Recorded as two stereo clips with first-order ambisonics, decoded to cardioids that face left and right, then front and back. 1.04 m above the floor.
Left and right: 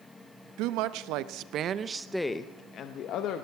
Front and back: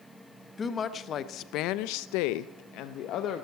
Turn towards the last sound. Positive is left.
turn(degrees=50)